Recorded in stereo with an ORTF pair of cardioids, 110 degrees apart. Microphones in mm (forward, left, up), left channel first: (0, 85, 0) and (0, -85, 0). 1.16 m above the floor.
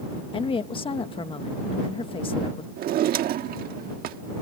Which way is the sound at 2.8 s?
65° right.